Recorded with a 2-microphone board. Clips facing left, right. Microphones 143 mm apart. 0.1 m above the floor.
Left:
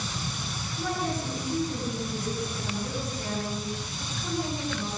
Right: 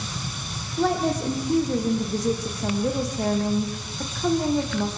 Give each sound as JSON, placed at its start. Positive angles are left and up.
{"t": 0.8, "sound": "a woman speaking", "side_deg": -75, "distance_m": 5.5}